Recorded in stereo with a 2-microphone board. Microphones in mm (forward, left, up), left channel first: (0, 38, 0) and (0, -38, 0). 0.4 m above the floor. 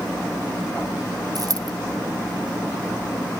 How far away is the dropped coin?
About 1.4 m.